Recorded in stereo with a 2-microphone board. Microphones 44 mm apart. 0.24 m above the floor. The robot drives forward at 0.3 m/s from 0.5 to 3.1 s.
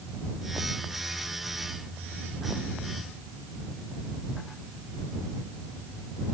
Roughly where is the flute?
I don't hear a flute.